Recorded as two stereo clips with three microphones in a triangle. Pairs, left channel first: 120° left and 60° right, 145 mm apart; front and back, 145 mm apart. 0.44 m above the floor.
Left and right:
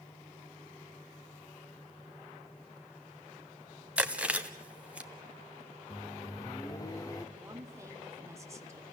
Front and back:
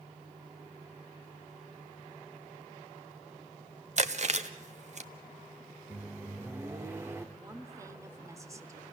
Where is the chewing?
140° right, 0.9 m.